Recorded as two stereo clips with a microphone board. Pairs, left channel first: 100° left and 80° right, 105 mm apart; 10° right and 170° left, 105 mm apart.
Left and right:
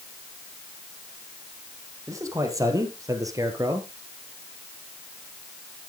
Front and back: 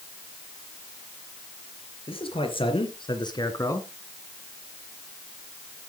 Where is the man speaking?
25° right, 3.5 m; by 3.9 s 50° right, 1.8 m.